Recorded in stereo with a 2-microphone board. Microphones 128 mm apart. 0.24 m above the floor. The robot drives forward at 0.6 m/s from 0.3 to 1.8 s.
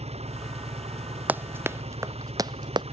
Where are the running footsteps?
15° right (ahead or behind); by 2.8 s 35° right (ahead or behind).